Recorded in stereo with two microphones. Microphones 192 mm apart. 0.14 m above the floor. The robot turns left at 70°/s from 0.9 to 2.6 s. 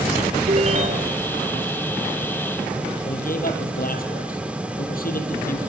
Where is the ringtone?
40° right (ahead or behind), 0.6 m; by 1.3 s 45° right (ahead or behind), 0.6 m.